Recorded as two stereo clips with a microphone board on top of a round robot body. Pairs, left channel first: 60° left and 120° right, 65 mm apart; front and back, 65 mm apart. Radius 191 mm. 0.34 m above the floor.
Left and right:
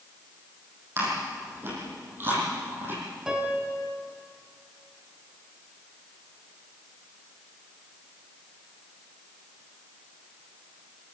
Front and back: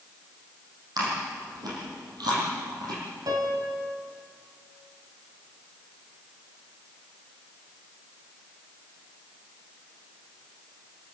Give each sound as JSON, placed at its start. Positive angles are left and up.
{"t": 1.0, "sound": "chewing", "azimuth_deg": -175, "distance_m": 8.5}
{"t": 3.3, "sound": "a piano", "azimuth_deg": 160, "distance_m": 3.5}